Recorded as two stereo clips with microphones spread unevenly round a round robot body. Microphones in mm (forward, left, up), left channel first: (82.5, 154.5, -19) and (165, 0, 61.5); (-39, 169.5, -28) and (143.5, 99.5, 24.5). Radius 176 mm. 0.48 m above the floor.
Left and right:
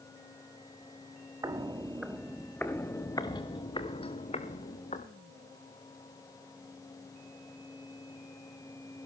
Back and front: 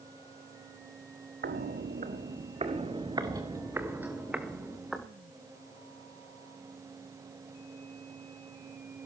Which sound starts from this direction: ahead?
Footsteps, at 1.4 s.